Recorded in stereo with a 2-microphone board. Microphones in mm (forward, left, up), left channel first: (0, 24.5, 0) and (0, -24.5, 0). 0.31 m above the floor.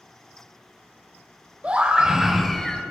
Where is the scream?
25° right (ahead or behind), 1.0 m; by 2.8 s 10° left (ahead or behind), 1.1 m.